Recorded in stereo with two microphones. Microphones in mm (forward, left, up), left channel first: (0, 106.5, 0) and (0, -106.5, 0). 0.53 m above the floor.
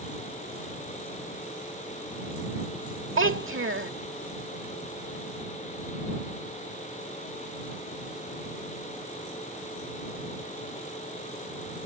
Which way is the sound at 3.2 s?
70° right (ahead or behind).